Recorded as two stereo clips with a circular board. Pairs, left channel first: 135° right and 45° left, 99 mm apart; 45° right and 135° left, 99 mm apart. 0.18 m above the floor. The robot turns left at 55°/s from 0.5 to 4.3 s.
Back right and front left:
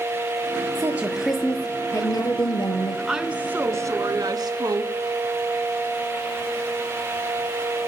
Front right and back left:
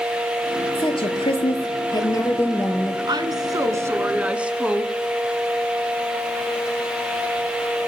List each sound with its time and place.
0.8 s a woman speaking: 15° right, 3 m; by 3.0 s 135° right, 3 m
3.1 s a woman speaking: 130° left, 1.6 m; by 4.9 s 60° left, 1.6 m